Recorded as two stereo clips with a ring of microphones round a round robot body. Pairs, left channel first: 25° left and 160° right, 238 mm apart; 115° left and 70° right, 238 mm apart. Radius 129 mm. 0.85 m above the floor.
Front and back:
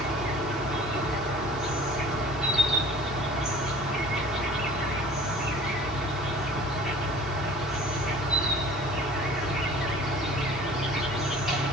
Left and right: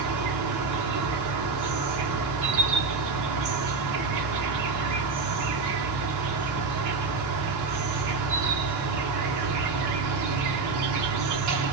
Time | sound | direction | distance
0.0 | an insect | 70° right | 1.2 m